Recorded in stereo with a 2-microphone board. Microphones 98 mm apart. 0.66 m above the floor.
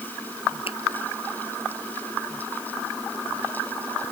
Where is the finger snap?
85° left.